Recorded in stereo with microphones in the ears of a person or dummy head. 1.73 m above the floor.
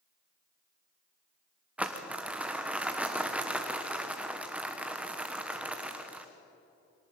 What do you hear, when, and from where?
1.8 s crumpling: 15° right (ahead or behind), 1.2 m